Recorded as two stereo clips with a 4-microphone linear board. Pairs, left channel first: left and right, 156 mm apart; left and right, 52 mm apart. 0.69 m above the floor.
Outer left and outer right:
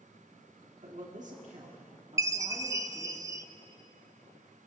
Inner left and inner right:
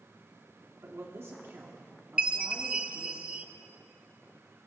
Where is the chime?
20° right (ahead or behind), 0.5 m.